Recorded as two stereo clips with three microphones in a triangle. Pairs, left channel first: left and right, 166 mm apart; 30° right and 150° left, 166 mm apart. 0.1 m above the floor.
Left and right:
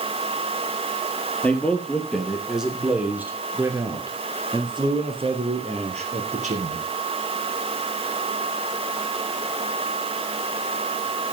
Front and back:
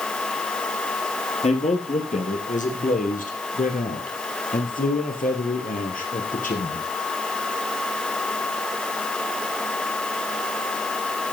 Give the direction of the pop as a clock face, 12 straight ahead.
No pop in this recording.